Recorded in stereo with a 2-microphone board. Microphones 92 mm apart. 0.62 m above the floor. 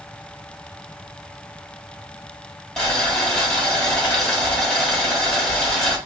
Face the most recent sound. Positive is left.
turn(degrees=5)  # may be behind; listen again after turning